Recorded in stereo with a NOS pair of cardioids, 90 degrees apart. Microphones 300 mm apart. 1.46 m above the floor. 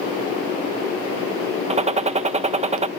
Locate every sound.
1.7 s a gunshot: 20° right